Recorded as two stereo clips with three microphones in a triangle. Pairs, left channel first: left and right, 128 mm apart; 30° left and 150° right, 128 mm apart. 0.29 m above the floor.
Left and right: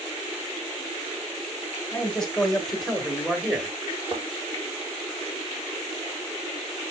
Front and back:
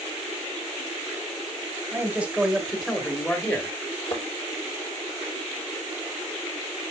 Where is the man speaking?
155° left, 1.3 m; by 3.8 s 15° right, 1.4 m.